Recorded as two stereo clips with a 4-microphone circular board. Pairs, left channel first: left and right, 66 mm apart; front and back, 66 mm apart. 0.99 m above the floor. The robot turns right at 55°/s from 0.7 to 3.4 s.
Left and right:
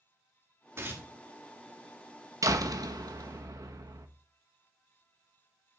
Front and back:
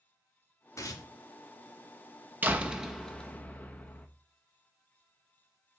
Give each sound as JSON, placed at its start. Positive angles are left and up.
{"t": 0.8, "sound": "tearing paper", "azimuth_deg": -40, "distance_m": 1.3}
{"t": 2.4, "sound": "a door slam", "azimuth_deg": -120, "distance_m": 0.8}